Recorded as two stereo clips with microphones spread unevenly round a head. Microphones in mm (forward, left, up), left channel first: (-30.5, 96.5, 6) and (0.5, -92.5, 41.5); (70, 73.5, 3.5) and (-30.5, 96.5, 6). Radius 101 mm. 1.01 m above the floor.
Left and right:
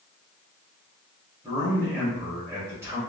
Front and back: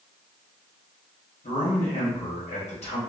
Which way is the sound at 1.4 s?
Straight ahead.